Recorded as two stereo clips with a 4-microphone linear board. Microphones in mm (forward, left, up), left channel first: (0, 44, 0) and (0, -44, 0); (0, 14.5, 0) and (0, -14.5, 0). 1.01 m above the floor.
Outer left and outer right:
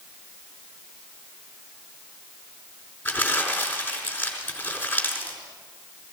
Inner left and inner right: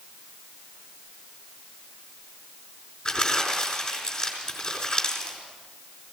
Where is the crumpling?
20° left (ahead or behind), 4 m.